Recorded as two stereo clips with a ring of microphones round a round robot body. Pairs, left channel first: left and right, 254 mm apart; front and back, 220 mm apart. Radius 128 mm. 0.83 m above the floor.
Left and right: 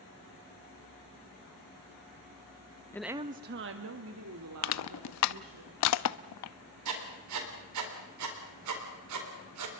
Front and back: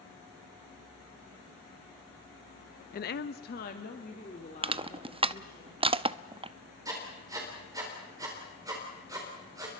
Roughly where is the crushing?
Behind left.